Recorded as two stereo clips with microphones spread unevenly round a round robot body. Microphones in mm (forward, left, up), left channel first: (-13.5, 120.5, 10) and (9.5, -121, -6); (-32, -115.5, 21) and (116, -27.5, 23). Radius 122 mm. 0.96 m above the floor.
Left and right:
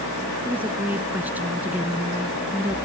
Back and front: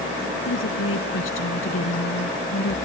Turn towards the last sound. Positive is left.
turn(degrees=-170)